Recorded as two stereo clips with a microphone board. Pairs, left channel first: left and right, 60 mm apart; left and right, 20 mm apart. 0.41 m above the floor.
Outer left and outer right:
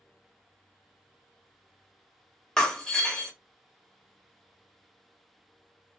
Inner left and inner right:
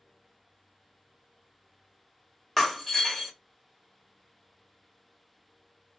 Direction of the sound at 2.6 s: 10° left (ahead or behind).